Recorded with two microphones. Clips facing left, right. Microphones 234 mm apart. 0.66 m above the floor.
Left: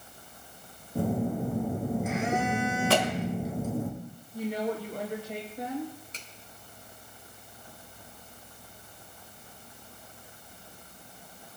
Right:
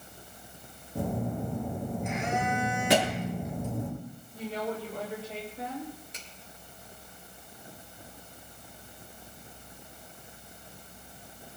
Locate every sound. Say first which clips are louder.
0.9 s a phone buzzing: left 4 dB; 5° left (ahead or behind), 6 m
2.9 s a thud: right 3 dB; 15° right (ahead or behind), 1.2 m
4.3 s a woman speaking: left 3 dB; 15° left (ahead or behind), 3.5 m
6.1 s a finger snap: even; 15° right (ahead or behind), 3 m